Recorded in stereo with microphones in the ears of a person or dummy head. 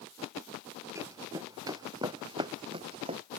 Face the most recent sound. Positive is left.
turn(degrees=-35)  # may be behind; listen again after turning